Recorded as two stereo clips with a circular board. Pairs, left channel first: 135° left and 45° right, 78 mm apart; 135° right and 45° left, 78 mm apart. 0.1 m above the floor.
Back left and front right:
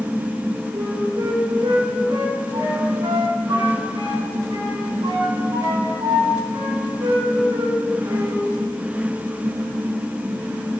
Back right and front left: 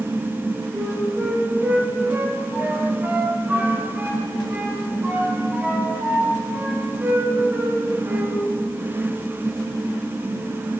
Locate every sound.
0.7 s a flute: 25° right, 8 m